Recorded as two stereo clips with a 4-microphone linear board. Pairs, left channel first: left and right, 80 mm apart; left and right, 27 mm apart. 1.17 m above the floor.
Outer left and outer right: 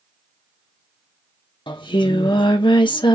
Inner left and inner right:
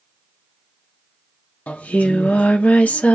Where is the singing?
85° left, 0.7 m.